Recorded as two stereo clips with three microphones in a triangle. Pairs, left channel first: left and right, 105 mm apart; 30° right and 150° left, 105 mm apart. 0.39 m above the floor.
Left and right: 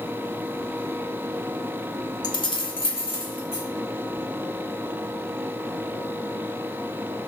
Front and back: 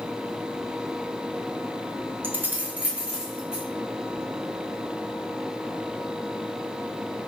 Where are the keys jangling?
95° left, 0.6 m; by 3.6 s 70° left, 1.4 m.